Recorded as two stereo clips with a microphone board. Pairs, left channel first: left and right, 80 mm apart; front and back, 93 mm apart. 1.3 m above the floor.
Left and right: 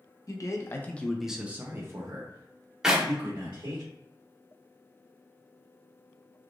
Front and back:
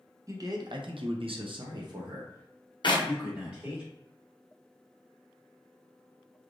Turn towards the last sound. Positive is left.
turn(degrees=-10)